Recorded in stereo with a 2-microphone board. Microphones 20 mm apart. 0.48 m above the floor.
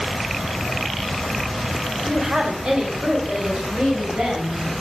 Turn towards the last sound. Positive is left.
turn(degrees=-70)  # may be behind; listen again after turning